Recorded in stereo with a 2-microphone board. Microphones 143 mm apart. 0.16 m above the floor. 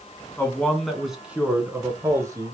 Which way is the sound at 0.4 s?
15° left (ahead or behind).